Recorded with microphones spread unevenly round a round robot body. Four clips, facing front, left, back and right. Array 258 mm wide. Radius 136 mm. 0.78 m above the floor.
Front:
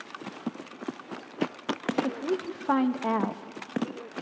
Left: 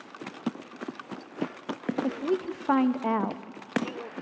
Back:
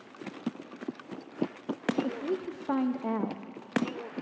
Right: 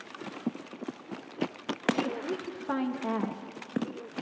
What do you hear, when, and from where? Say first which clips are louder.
2.0 s a woman speaking: left 6 dB, front 3 dB; 55° left, 0.9 m